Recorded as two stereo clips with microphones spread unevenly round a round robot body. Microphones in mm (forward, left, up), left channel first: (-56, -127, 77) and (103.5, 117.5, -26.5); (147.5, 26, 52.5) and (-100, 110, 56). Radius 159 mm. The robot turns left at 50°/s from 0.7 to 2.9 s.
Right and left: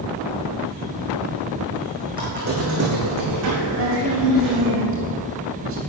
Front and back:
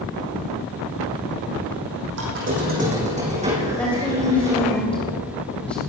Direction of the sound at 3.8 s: 65° left.